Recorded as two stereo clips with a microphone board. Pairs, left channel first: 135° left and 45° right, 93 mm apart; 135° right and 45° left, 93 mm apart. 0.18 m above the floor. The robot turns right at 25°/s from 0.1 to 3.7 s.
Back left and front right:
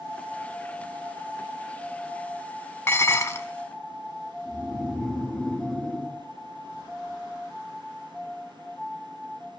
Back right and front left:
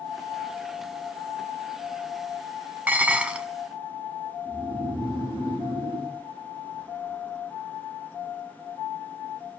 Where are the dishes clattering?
100° left, 0.8 m; by 3.5 s 115° left, 0.8 m.